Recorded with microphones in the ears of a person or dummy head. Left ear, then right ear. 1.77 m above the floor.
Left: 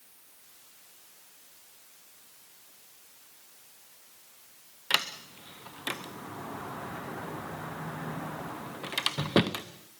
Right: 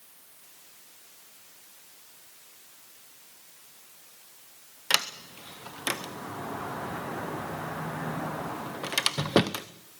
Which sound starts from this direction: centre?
A sliding door, at 4.9 s.